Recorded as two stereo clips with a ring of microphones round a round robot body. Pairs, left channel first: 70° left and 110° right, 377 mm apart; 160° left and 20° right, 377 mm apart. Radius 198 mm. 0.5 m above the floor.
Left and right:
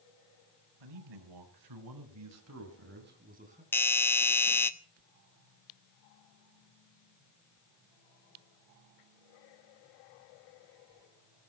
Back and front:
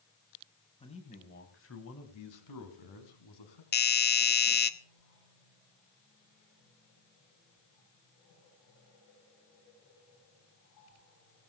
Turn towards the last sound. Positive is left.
turn(degrees=145)